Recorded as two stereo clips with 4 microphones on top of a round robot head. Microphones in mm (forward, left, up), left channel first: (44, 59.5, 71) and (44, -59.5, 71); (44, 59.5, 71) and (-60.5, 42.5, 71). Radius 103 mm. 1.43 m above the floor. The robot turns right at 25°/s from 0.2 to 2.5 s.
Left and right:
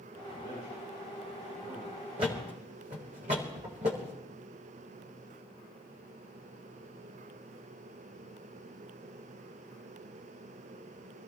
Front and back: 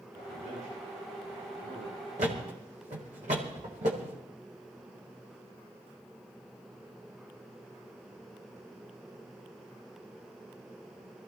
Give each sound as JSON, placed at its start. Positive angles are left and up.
{"t": 0.1, "sound": "a man speaking", "azimuth_deg": -175, "distance_m": 9.5}
{"t": 2.2, "sound": "a thud", "azimuth_deg": -145, "distance_m": 1.5}